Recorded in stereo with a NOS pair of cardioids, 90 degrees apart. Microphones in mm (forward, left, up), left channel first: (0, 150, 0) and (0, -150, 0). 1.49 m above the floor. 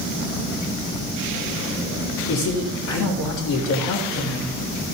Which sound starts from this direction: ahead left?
A man speaking, at 2.3 s.